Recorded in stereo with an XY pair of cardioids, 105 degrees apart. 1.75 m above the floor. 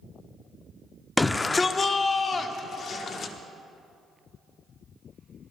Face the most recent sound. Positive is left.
turn(degrees=55)